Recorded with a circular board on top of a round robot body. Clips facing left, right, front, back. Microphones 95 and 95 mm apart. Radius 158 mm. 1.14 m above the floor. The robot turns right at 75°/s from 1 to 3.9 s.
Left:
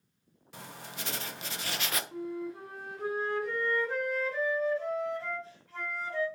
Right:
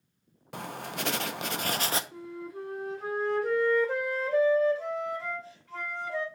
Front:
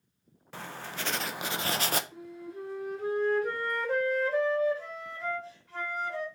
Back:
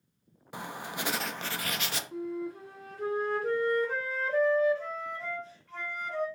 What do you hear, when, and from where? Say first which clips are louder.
0.5 s writing: right 8 dB, back 2 dB; 105° right, 0.6 m; by 2.0 s 30° right, 0.6 m
2.1 s a flute: left 3 dB, back 7 dB; 140° left, 0.8 m; by 6.3 s 85° right, 0.8 m